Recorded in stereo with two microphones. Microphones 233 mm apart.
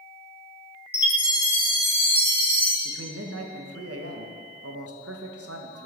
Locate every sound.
0.9 s a chime: 5° right (ahead or behind), 1.3 m
2.9 s a man speaking: 85° right, 0.7 m